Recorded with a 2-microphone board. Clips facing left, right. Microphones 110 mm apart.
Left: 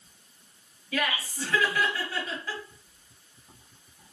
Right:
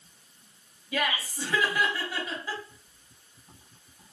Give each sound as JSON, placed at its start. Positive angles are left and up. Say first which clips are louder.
{"t": 0.9, "sound": "laughter", "louder": "even", "side_deg": -15, "distance_m": 1.0}